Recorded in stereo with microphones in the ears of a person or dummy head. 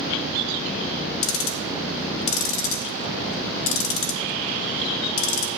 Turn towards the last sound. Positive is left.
turn(degrees=75)  # may be behind; listen again after turning